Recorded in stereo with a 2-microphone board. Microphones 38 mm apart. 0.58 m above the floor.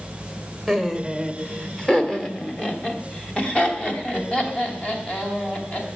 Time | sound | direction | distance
0.7 | laughter | 5° left (ahead or behind) | 1.7 m